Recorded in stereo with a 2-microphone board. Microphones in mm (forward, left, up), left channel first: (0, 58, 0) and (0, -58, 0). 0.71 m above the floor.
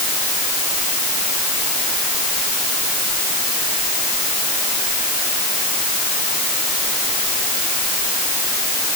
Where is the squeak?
I don't hear a squeak.